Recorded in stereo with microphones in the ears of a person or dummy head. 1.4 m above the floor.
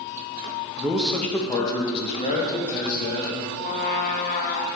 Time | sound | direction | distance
0.8 | a man speaking | 5° right (ahead or behind) | 0.9 m
3.6 | a trumpet | 45° left (ahead or behind) | 0.7 m